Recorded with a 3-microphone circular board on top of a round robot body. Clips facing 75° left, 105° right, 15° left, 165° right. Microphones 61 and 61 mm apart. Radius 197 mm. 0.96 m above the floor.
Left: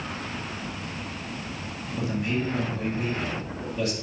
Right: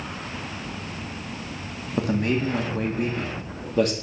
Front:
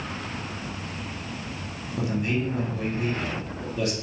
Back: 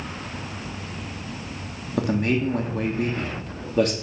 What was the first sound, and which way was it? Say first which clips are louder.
A man speaking: right 5 dB, back 4 dB; 135° right.